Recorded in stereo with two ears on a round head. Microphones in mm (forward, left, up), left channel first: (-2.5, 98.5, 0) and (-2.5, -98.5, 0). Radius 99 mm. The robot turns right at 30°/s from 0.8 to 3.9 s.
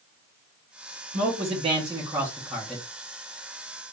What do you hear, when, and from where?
1.1 s a man speaking: 45° right, 1.1 m; by 2.8 s 10° left, 1.1 m